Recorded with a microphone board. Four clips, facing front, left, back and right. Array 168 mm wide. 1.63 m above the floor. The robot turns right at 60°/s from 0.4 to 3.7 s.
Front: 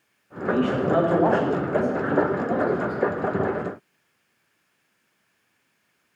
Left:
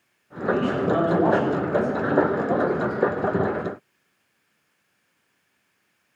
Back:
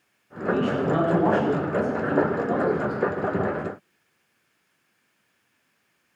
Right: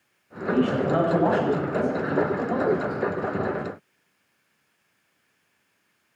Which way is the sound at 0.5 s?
20° right.